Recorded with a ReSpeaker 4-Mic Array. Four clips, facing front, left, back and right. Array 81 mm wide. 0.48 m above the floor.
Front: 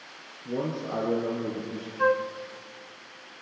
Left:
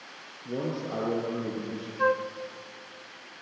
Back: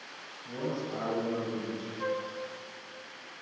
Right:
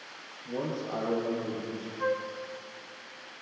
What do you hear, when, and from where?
0.5 s a man speaking: 35° left, 6 m
2.0 s a flute: 45° left, 1.1 m